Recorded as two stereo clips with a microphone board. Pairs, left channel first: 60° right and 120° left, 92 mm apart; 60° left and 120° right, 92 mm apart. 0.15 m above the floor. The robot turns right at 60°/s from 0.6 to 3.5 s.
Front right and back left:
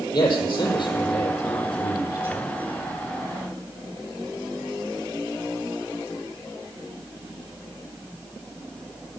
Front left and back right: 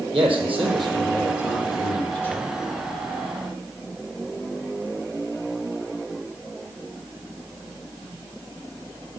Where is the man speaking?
105° right, 5 m; by 2.5 s 15° left, 5 m.